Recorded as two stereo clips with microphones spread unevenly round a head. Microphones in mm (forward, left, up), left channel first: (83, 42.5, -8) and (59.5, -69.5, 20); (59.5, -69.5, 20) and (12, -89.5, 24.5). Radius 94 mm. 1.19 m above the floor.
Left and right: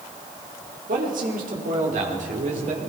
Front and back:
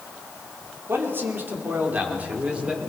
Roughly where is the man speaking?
Behind right.